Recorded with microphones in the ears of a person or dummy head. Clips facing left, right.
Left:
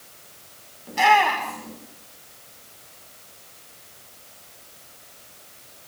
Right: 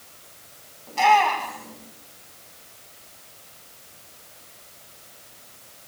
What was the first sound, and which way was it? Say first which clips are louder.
A shout: even; 15° left (ahead or behind).